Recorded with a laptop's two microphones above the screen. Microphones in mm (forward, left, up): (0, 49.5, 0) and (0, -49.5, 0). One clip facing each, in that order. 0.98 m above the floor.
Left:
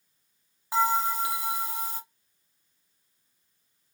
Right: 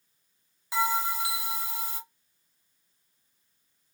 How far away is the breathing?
No breathing in this recording.